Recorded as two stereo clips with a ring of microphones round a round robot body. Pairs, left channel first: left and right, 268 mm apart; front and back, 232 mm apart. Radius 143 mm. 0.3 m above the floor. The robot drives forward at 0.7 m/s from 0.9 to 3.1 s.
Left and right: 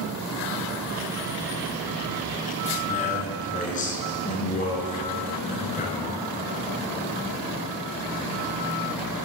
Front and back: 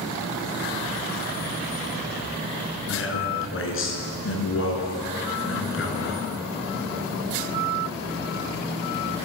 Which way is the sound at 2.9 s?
25° left.